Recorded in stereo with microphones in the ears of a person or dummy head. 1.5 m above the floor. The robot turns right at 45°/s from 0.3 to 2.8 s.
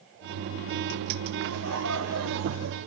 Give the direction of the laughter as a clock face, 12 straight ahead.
4 o'clock.